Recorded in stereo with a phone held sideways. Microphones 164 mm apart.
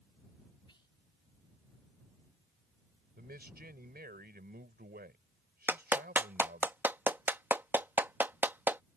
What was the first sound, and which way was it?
Whispering, 30° left (ahead or behind).